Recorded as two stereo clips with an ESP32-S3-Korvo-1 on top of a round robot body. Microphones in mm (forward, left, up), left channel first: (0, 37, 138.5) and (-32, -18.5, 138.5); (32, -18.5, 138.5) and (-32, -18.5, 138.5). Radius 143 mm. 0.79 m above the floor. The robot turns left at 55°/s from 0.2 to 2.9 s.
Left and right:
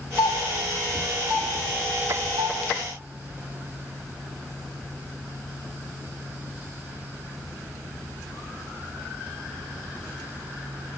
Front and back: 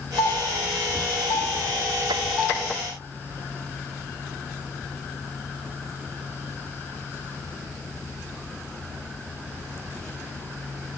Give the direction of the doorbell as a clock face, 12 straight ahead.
11 o'clock.